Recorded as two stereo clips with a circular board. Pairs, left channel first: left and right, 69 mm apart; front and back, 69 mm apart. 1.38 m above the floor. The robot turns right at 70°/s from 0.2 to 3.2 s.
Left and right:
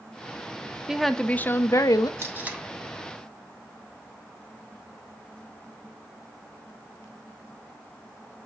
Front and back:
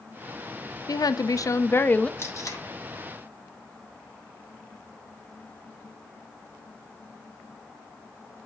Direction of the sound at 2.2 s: 45° right.